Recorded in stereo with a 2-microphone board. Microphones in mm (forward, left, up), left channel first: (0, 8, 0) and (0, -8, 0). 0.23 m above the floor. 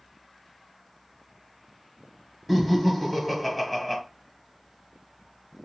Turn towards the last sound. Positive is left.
turn(degrees=-5)  # may be behind; listen again after turning